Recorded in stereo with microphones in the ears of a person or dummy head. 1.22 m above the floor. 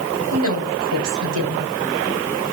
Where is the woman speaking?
80° right, 3.5 m.